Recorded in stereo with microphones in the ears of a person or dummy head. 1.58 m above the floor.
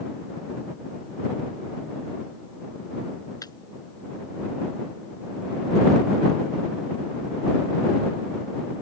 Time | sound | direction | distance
3.4 | breaking glass | 20° left (ahead or behind) | ?